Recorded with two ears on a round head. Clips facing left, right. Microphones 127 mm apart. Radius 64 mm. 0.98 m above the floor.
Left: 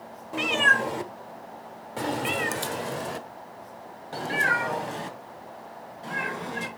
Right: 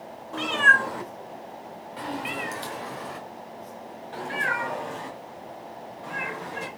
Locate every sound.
0.3 s a cat meowing: 15° left (ahead or behind), 1.1 m; by 6.7 s 35° left (ahead or behind), 3.5 m